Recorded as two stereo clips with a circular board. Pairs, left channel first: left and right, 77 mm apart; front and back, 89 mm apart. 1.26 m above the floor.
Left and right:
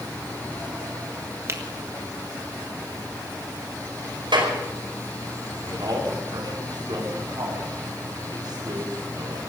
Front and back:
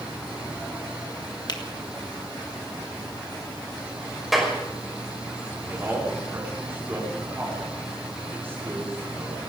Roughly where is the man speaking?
Behind right.